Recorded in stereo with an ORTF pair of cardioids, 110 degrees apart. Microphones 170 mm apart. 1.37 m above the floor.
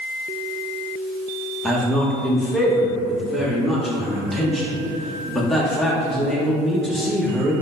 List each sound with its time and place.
1.6 s a man speaking: straight ahead, 1.0 m